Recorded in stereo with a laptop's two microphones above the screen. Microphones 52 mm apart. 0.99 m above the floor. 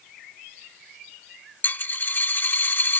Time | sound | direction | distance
1.6 | a dropped coin | 40° left (ahead or behind) | ?